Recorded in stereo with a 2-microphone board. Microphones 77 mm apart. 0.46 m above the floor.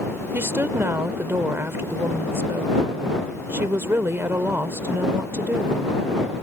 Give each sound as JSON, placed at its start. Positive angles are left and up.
{"t": 0.3, "sound": "a woman speaking", "side_deg": -30}